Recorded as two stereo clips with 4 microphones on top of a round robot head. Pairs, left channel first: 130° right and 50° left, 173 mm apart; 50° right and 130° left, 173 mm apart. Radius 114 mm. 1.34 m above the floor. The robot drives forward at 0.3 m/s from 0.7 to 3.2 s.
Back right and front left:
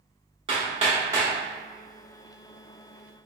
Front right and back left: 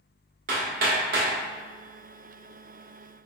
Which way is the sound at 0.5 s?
105° left.